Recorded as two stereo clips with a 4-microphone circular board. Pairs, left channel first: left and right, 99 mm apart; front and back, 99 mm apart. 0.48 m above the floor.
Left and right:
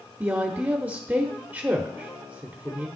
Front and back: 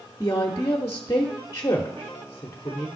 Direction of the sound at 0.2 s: 35° right.